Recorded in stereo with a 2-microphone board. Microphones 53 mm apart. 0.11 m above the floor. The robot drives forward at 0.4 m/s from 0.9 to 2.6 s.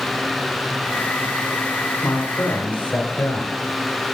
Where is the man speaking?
30° left (ahead or behind), 1.4 m.